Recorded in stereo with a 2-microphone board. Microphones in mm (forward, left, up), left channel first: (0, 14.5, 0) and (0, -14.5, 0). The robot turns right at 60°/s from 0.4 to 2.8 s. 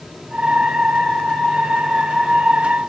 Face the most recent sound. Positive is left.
No sound to turn to.